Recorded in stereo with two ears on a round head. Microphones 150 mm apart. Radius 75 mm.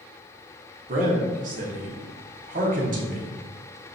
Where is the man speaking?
50° right (ahead or behind), 1.1 m.